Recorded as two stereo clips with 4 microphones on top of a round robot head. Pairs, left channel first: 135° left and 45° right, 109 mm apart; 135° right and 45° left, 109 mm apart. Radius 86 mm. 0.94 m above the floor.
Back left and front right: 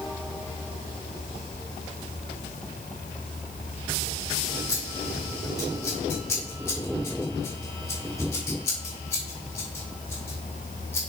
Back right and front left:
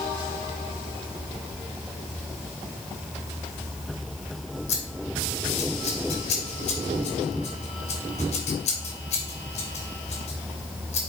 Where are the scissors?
155° right, 2.5 m.